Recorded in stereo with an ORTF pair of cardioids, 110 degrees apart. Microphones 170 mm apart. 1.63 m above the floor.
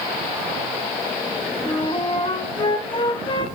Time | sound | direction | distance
1.6 | a flute | 30° left | 1.4 m